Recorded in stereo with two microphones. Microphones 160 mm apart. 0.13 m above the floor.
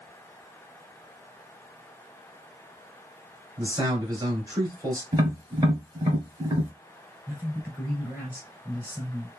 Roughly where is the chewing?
No chewing in this recording.